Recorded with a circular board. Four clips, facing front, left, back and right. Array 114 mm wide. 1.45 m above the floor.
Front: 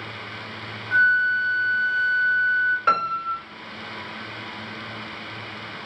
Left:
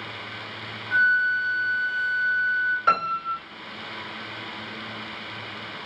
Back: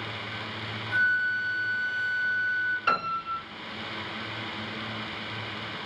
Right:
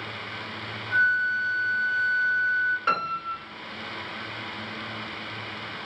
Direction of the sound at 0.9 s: 30° left.